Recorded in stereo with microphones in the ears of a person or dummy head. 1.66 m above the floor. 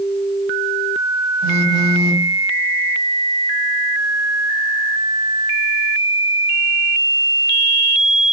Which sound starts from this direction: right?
A phone buzzing, at 1.4 s.